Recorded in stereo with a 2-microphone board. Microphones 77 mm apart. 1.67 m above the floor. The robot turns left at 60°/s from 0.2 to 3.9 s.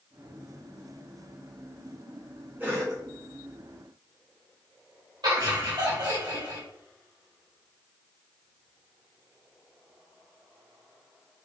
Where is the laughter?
70° right (ahead or behind), 2 m.